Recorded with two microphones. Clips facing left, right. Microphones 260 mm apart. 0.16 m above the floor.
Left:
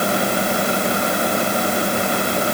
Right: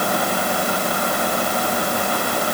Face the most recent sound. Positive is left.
No sound to turn to.